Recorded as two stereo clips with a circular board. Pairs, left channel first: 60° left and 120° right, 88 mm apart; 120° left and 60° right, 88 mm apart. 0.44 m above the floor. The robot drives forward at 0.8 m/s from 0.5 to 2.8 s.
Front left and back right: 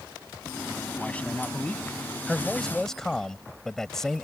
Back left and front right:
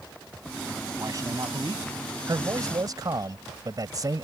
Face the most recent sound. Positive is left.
turn(degrees=-25)